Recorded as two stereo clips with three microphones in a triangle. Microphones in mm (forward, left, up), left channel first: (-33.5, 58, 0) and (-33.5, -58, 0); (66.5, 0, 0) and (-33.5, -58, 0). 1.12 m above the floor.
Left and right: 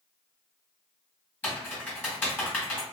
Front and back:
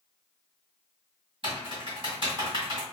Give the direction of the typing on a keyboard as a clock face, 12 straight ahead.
6 o'clock.